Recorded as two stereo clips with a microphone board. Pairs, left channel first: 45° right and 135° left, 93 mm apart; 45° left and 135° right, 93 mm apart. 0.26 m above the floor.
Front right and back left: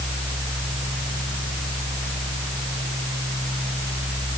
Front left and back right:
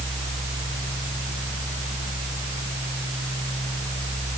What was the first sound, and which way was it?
Only background noise.